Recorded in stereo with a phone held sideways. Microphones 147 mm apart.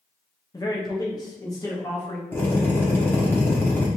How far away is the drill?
About 1.4 m.